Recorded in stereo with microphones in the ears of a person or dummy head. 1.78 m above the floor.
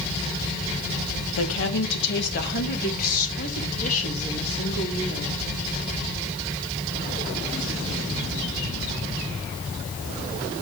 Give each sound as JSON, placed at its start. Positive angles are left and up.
{"t": 1.4, "sound": "a woman speaking", "side_deg": 80, "distance_m": 1.9}